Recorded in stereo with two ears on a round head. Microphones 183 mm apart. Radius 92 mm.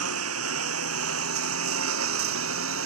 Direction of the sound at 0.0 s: 85° right.